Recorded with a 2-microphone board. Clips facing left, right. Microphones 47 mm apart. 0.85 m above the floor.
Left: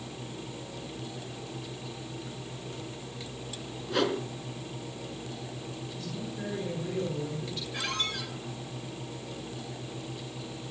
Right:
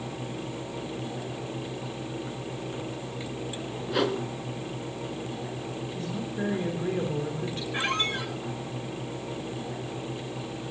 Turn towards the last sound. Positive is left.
turn(degrees=-35)  # may be behind; listen again after turning